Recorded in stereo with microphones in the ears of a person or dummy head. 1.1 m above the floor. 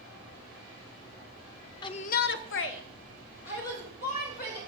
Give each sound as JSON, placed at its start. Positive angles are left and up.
{"t": 1.8, "sound": "a shout", "side_deg": 25, "distance_m": 0.5}